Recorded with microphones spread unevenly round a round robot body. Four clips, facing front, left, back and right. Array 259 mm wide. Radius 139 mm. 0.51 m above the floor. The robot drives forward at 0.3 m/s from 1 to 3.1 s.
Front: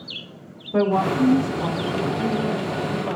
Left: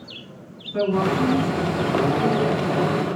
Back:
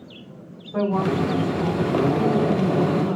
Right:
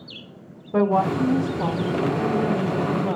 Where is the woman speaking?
55° right, 3.5 m; by 3.2 s 65° right, 3 m.